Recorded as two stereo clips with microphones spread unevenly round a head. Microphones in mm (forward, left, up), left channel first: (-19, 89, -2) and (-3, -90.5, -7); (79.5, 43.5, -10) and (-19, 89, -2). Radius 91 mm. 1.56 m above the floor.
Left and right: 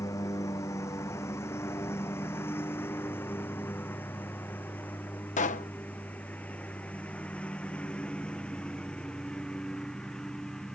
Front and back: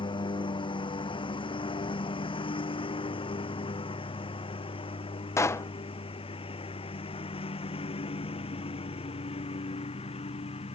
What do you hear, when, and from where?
0.0 s a lawn mower: 20° left; by 10.8 s 10° left
5.4 s a pop: 40° left